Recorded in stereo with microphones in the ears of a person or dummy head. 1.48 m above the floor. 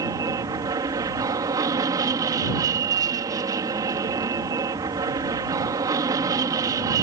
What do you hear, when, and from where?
0.0 s an aircraft: 20° right (ahead or behind)